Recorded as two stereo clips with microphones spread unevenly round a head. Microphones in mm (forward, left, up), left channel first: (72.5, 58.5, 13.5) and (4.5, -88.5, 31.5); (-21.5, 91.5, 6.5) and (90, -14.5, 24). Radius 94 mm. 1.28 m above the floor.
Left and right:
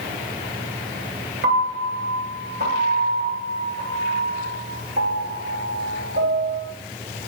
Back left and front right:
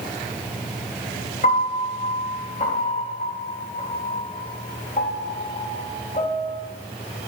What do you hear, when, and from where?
1.4 s a piano: 165° right, 3.5 m